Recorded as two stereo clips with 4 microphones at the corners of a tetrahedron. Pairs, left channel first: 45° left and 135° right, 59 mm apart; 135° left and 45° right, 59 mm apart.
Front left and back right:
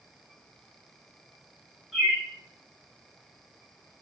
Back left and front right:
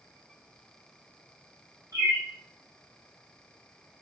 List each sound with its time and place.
1.9 s a bird: 55° right, 2.0 m